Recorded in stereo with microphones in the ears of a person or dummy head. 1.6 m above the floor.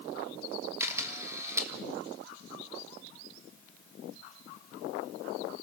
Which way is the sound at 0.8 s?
10° right (ahead or behind).